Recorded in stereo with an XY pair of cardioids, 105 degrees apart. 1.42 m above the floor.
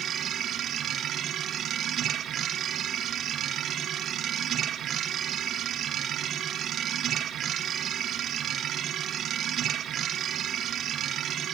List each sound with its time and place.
0.0 s a machine running: 60° right, 1.4 m